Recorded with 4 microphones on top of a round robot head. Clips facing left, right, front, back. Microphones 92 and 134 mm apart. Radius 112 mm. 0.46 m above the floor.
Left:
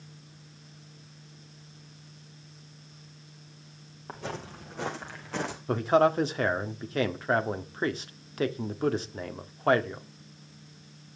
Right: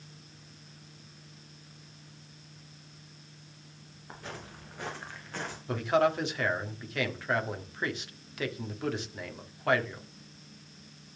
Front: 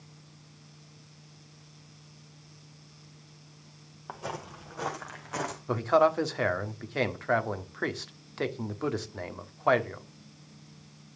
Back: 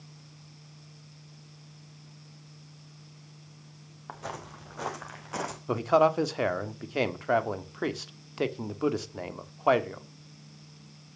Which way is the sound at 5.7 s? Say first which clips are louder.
Left 3 dB, back 1 dB; 110° left.